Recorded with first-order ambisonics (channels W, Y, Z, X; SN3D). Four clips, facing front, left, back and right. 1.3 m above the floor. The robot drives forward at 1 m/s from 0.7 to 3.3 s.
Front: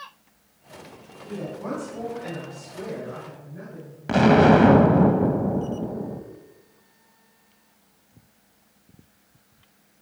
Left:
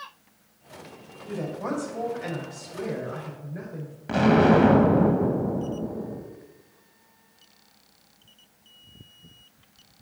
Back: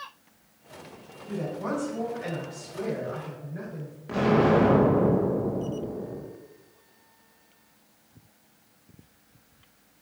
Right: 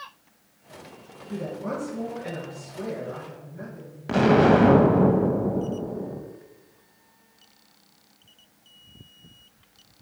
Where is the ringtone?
I don't hear a ringtone.